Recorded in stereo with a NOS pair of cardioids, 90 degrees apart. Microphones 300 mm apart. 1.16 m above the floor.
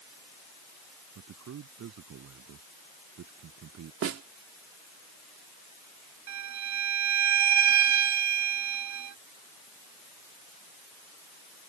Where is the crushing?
I don't hear crushing.